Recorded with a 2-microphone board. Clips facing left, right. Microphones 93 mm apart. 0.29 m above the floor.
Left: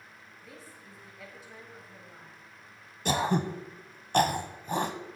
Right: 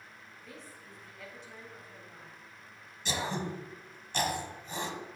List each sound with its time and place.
0.4 s a woman speaking: 5° left (ahead or behind), 1.7 m
3.0 s throat clearing: 50° left (ahead or behind), 0.8 m